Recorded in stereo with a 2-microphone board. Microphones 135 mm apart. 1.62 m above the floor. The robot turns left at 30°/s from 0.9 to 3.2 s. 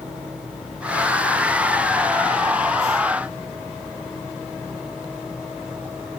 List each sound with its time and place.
Only background noise.